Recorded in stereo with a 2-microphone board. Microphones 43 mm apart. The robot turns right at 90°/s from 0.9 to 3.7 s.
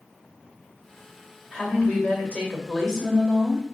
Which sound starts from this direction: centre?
A woman speaking, at 1.5 s.